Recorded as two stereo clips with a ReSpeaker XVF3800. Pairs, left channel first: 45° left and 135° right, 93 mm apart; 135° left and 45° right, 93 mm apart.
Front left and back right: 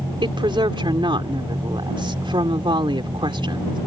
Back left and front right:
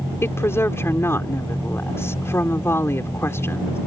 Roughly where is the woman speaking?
Behind.